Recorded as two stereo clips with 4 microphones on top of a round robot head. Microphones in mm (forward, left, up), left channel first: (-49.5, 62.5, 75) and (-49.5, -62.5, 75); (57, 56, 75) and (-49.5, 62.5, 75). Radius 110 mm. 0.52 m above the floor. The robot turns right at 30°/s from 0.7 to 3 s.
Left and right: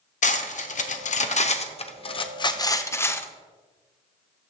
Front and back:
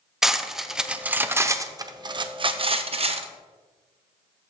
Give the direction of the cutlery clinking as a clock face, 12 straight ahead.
9 o'clock.